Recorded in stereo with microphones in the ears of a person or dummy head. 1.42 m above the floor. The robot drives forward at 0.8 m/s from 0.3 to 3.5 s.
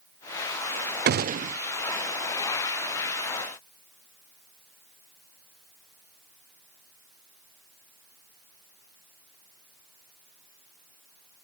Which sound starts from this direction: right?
A gunshot, at 1.1 s.